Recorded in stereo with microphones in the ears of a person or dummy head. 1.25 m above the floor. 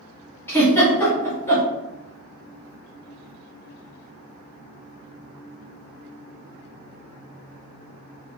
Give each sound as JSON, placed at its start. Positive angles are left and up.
{"t": 0.5, "sound": "a giggle", "side_deg": 15, "distance_m": 1.2}